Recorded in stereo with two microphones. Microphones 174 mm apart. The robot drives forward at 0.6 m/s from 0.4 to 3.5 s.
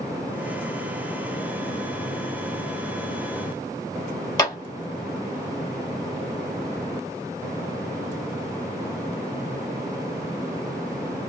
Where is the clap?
25° left (ahead or behind), 1.4 m.